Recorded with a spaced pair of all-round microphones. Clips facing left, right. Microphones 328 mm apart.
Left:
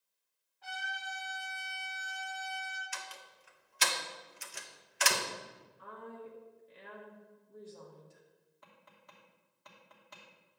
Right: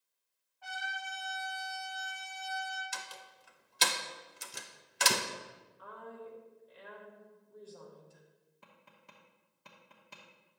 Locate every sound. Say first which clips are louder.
0.6 s a trumpet: right 1 dB; 25° left (ahead or behind), 3.5 m
2.9 s a door slam: right 1 dB; 50° right (ahead or behind), 0.6 m
5.8 s a woman speaking: even; 30° left (ahead or behind), 1.4 m
8.6 s tapping: even; 40° right (ahead or behind), 1.1 m